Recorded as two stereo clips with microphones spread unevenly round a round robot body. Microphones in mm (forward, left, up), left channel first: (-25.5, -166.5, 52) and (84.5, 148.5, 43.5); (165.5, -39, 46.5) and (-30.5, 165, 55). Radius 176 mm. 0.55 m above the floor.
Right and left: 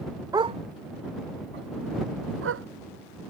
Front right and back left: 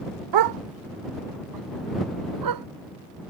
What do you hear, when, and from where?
0.3 s a dog barking: 150° left; by 2.7 s 130° left